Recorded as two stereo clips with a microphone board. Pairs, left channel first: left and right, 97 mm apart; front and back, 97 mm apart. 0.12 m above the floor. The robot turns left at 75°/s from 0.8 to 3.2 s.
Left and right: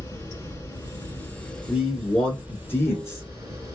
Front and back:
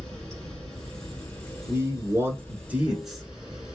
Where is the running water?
80° left, 1.4 m; by 3.8 s 100° right, 1.4 m.